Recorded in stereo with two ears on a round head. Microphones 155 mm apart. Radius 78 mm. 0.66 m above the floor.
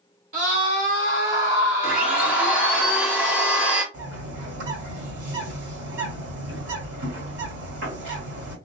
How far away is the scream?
About 2 m.